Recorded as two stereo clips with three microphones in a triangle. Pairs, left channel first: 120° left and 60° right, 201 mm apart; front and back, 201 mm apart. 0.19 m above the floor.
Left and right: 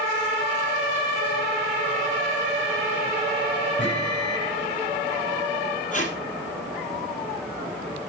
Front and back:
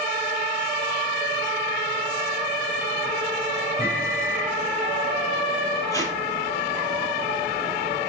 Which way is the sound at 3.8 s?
100° left.